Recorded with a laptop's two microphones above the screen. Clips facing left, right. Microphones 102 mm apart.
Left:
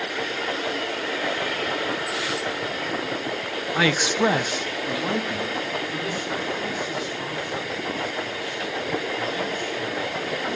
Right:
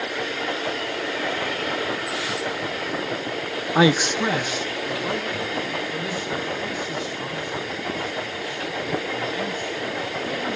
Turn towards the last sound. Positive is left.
turn(degrees=50)  # may be behind; listen again after turning